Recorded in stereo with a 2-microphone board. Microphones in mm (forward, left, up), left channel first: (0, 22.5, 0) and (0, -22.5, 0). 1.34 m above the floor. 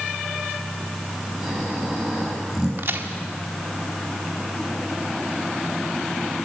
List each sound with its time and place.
1.4 s snoring: 5° right (ahead or behind), 6.5 m
2.8 s a crack: 55° right (ahead or behind), 1.9 m